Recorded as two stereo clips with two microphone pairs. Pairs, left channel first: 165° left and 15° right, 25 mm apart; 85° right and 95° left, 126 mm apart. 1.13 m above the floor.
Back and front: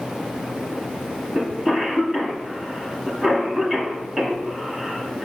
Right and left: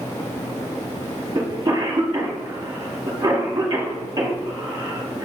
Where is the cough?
45° left, 0.9 m.